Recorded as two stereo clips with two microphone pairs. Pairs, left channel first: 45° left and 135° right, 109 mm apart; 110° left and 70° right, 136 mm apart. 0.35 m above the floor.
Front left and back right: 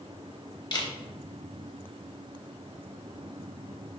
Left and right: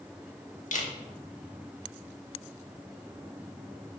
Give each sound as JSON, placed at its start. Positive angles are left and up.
{"t": 0.7, "sound": "a camera shutter", "azimuth_deg": 90, "distance_m": 0.6}